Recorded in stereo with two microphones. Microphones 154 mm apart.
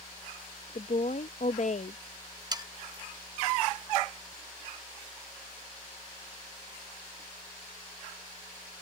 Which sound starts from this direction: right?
Sawing, at 2.5 s.